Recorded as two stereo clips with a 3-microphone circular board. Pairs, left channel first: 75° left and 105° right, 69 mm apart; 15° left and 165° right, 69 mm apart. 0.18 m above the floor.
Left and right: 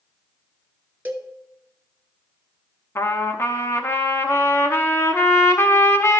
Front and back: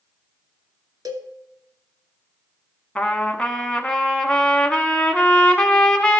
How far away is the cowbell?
About 0.8 m.